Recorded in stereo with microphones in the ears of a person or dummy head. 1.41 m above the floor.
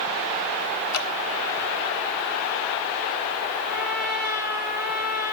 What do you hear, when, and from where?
0.9 s dripping: 60° left (ahead or behind), 0.8 m
3.7 s a trumpet: 45° left (ahead or behind), 1.9 m